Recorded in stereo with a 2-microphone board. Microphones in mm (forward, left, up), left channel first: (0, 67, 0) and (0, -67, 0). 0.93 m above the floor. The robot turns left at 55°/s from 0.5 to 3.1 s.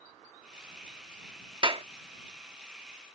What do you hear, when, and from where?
1.6 s a clap: 35° right (ahead or behind); by 1.9 s 50° right (ahead or behind)